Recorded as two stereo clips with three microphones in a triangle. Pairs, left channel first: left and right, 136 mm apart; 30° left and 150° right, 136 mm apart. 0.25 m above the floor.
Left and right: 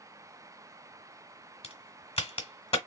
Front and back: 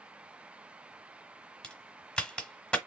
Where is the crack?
110° left, 1.2 m.